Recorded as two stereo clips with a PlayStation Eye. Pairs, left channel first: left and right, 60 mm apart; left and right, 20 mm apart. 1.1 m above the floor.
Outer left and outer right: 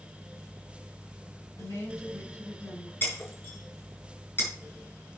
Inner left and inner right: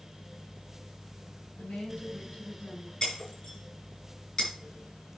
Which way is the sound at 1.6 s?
70° left (ahead or behind).